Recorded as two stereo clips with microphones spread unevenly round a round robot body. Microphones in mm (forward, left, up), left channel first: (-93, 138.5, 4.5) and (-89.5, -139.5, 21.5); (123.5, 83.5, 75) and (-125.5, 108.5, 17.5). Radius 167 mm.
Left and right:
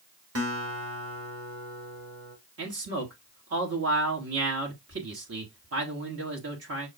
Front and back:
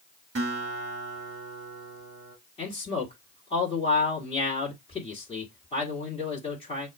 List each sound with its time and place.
0.3 s a guitar: 125° right, 1.4 m
2.6 s a man speaking: 80° right, 1.4 m